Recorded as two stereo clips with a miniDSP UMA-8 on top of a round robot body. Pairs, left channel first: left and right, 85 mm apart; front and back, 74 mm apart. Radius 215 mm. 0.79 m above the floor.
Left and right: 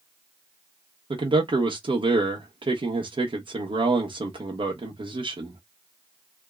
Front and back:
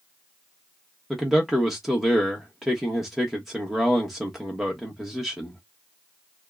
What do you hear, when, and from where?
1.1 s a man speaking: 95° right, 1.2 m